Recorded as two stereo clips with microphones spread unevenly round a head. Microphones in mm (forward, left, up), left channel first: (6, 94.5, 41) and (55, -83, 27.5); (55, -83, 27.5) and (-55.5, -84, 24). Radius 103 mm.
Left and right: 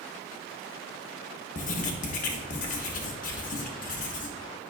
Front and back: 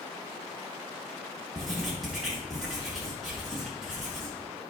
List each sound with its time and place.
1.6 s writing: 90° left, 0.8 m